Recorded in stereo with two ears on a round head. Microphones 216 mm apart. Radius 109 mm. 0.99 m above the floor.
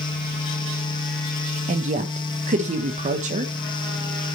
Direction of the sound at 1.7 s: 30° right (ahead or behind).